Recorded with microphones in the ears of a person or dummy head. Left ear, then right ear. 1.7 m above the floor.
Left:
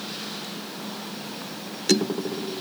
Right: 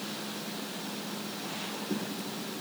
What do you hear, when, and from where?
Only background noise.